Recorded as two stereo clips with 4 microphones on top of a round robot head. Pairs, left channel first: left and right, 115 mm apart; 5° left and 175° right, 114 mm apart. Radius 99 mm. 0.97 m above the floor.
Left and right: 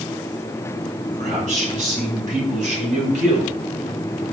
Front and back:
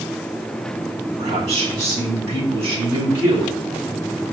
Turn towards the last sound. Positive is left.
turn(degrees=-95)